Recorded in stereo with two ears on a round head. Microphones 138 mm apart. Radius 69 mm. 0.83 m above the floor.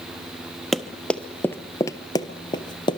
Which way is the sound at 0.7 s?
Centre (ahead or behind).